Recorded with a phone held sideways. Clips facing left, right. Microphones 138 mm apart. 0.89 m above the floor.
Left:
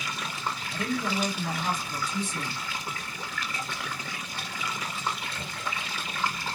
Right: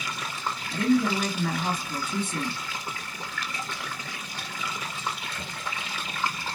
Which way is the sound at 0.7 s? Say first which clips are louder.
Right 8 dB; 60° right (ahead or behind).